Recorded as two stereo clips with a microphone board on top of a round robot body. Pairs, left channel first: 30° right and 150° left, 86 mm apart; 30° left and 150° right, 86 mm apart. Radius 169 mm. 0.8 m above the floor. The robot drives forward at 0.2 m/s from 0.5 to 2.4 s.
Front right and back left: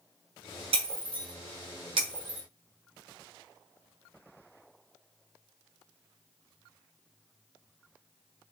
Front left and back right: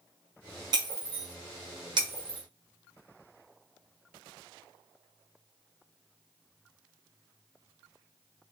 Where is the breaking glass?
170° left, 1.0 m.